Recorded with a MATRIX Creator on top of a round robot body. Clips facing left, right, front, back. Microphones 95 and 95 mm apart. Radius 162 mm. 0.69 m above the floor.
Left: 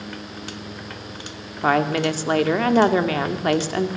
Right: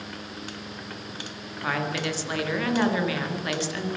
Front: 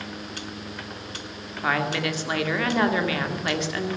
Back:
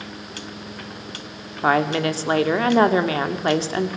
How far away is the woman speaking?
About 2 m.